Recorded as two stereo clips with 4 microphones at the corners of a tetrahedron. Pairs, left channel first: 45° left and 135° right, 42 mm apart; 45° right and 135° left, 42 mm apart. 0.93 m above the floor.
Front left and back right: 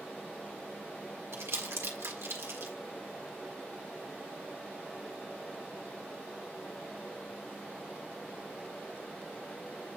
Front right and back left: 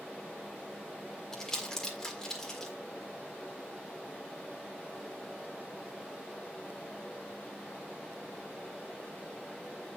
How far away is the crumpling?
About 1.5 m.